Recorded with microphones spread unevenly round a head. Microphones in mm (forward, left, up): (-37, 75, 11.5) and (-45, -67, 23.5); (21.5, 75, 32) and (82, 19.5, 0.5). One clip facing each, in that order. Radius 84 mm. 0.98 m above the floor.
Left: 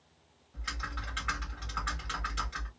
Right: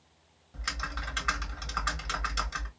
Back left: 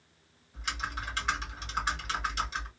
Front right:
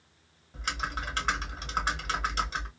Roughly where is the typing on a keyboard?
Ahead right.